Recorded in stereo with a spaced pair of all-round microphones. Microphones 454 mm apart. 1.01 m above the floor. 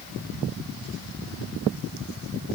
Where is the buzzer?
No buzzer in this recording.